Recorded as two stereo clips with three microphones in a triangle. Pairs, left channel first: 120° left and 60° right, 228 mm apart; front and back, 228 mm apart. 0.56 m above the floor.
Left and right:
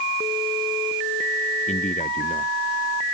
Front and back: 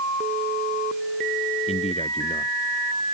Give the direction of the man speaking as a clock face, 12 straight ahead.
10 o'clock.